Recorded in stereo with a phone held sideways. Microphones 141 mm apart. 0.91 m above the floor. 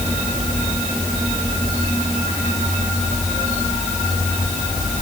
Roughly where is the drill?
No drill in this recording.